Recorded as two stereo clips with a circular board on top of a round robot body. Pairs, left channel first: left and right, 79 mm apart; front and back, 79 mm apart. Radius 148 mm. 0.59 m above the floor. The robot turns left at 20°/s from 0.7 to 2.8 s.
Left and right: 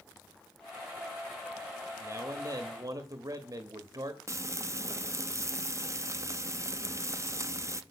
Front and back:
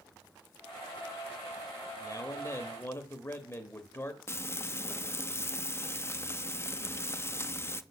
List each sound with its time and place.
2.0 s a man speaking: 35° right, 1.2 m; by 4.2 s 50° right, 1.2 m
4.3 s frying: 50° right, 0.8 m